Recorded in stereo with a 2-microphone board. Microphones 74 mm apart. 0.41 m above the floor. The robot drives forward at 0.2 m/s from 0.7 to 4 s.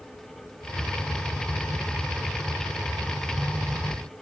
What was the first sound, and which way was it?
Only background noise.